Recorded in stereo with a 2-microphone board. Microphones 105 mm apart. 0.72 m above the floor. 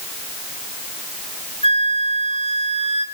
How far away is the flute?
About 3 m.